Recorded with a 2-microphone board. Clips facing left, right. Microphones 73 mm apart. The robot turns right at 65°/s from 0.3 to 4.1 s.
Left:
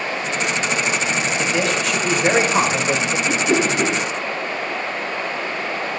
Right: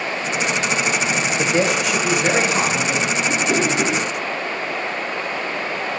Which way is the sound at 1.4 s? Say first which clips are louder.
Right 4 dB; 40° right.